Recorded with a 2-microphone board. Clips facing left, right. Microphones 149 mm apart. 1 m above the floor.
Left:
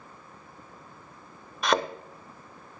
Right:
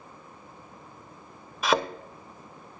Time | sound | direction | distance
1.6 | a thud | centre (ahead or behind) | 0.7 m